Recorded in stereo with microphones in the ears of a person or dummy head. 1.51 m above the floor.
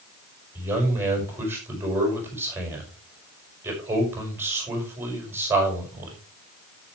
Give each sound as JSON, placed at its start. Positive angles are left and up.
{"t": 0.6, "sound": "a man speaking", "side_deg": -15, "distance_m": 6.0}